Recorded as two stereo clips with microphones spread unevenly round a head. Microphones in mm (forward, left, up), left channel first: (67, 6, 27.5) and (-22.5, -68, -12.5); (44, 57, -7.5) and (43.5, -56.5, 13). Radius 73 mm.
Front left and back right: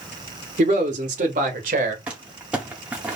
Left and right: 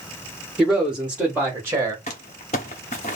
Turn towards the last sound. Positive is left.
turn(degrees=140)